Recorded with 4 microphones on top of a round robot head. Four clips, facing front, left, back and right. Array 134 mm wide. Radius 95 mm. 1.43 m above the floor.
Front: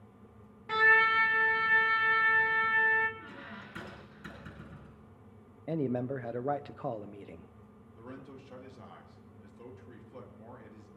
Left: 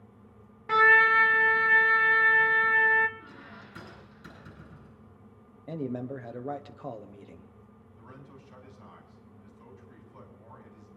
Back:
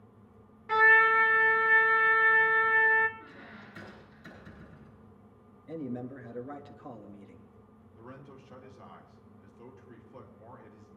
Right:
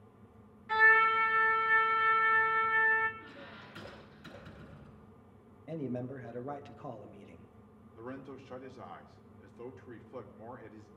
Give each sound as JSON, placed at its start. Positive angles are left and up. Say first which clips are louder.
{"t": 0.7, "sound": "a trumpet", "louder": "left 5 dB, back 3 dB", "azimuth_deg": 85, "distance_m": 1.1}
{"t": 3.2, "sound": "a squeak", "louder": "left 2 dB, front 2 dB", "azimuth_deg": 30, "distance_m": 8.5}
{"t": 5.7, "sound": "a man speaking", "louder": "left 4 dB, front 5 dB", "azimuth_deg": 20, "distance_m": 1.1}
{"t": 8.0, "sound": "a man speaking", "louder": "right 7 dB, front 2 dB", "azimuth_deg": -80, "distance_m": 2.5}